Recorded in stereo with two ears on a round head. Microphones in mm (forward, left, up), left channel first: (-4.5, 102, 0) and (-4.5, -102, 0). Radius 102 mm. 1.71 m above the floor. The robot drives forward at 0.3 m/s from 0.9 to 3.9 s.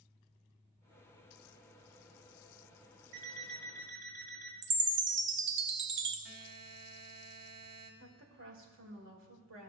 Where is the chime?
50° right (ahead or behind), 0.7 m.